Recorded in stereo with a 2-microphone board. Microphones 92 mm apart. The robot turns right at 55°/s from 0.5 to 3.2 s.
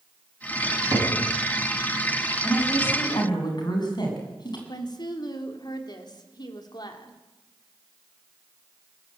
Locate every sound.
0.6 s a cupboard door: 20° right (ahead or behind), 9 m; by 1.1 s 45° right (ahead or behind), 9 m
2.4 s a woman speaking: 5° left, 7 m; by 4.6 s 50° left, 7 m
4.7 s a woman speaking: 50° left (ahead or behind), 3 m